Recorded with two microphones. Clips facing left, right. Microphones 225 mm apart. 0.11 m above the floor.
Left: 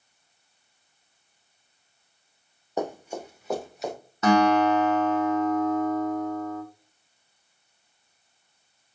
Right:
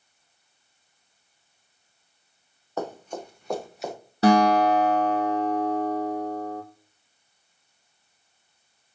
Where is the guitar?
35° right (ahead or behind), 1.4 m.